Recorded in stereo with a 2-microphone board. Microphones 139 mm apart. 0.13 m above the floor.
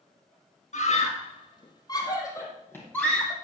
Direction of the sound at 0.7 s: 55° left (ahead or behind).